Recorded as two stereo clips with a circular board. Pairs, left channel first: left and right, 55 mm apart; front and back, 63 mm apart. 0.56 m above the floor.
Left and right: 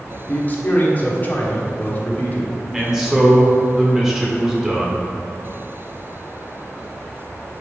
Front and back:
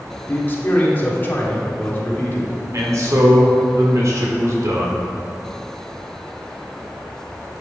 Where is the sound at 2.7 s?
170° right, 1.5 m.